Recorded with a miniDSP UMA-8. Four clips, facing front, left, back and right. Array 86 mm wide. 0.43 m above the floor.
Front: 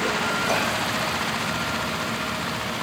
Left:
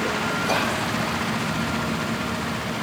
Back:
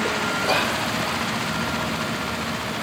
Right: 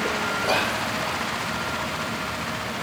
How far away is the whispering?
About 0.8 m.